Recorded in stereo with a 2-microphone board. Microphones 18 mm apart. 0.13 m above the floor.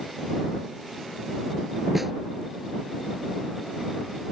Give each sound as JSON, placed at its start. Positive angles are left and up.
{"t": 1.9, "sound": "a snare drum", "side_deg": -15}